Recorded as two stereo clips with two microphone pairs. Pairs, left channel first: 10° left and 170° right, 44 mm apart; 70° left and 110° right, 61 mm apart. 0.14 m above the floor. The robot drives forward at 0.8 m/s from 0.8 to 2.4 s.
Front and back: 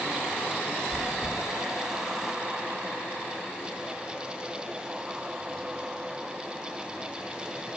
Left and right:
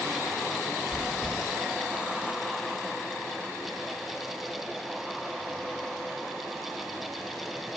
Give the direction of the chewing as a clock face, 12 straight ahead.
2 o'clock.